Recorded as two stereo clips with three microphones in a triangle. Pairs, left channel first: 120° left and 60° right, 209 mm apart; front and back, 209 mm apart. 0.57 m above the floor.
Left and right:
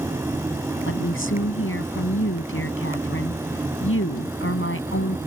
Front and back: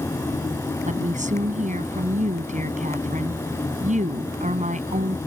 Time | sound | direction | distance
0.9 | a woman speaking | 125° left | ?